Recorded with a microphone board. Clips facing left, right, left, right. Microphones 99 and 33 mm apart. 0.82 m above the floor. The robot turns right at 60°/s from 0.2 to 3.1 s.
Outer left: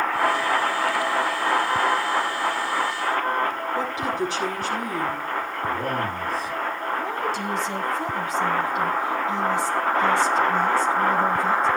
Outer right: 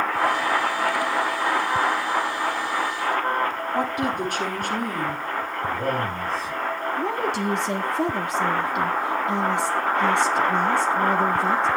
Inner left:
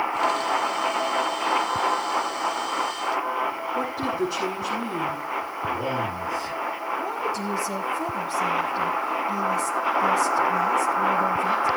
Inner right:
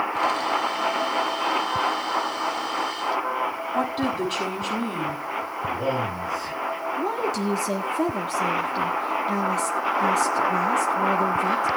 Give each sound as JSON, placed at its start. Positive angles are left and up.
{"t": 3.8, "sound": "a woman speaking", "side_deg": -55, "distance_m": 7.0}
{"t": 5.7, "sound": "a man speaking", "side_deg": 5, "distance_m": 9.5}
{"t": 7.0, "sound": "a woman speaking", "side_deg": -65, "distance_m": 1.5}